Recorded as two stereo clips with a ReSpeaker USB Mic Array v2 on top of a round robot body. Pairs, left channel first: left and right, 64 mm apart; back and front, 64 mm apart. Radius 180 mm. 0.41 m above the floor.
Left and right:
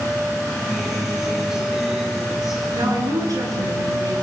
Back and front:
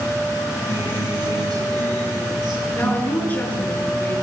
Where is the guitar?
10° right, 6.5 m.